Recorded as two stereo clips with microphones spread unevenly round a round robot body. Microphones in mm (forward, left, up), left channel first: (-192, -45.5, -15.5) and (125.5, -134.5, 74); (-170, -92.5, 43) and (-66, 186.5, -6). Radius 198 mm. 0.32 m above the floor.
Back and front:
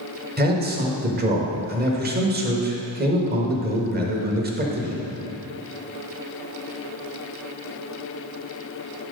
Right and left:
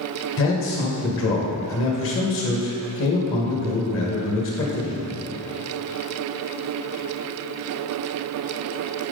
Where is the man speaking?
80° right, 1.3 m.